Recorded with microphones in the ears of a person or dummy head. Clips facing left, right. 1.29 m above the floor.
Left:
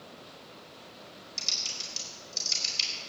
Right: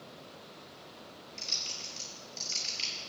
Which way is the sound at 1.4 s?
60° left (ahead or behind).